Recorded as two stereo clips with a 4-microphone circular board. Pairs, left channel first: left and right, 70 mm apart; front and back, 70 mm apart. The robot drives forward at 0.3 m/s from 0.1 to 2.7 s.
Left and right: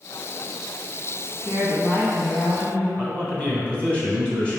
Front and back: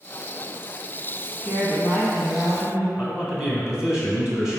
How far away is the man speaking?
About 1.1 m.